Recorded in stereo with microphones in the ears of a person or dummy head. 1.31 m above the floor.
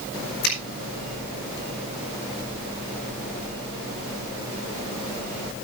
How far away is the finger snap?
About 4.5 m.